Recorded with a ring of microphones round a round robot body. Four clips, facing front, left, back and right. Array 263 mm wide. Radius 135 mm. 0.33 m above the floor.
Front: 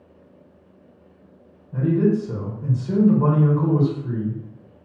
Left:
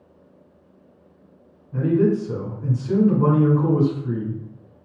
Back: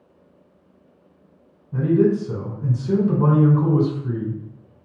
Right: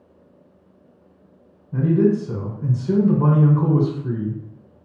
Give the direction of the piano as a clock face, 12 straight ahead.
I don't hear a piano.